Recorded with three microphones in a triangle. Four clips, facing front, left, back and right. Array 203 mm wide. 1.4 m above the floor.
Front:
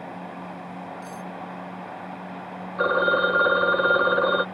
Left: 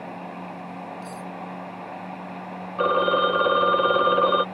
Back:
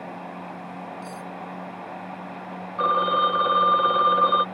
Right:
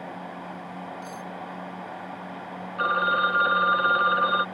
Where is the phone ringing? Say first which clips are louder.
Left 3 dB, even; 50° left.